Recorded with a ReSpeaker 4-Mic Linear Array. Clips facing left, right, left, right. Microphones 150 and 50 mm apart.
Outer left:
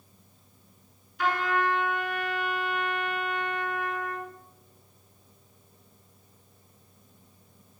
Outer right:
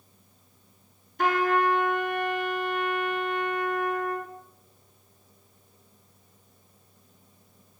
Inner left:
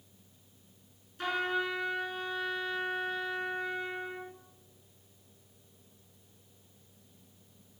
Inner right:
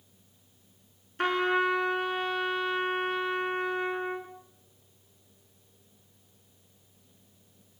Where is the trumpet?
50° right (ahead or behind), 3 m.